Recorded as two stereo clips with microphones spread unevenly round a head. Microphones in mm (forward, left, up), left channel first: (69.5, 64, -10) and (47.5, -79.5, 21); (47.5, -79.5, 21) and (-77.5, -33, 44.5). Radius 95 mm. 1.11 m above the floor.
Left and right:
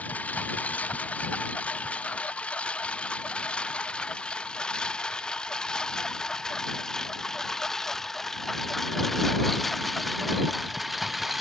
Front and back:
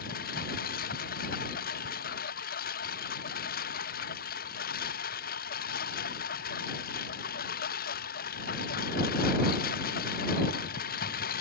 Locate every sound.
0.0 s a lawn mower: straight ahead; by 11.4 s 10° right